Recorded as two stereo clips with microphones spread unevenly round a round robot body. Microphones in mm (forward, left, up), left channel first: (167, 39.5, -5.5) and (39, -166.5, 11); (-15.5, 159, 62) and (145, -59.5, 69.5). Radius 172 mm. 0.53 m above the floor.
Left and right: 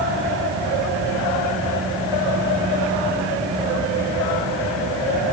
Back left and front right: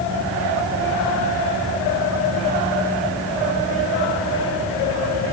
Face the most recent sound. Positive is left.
No sound to turn to.